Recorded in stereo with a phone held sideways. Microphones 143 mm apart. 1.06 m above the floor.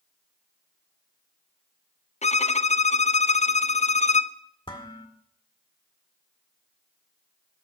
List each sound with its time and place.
2.2 s a violin: 50° left (ahead or behind), 0.5 m
4.7 s dishes clattering: 35° left (ahead or behind), 1.8 m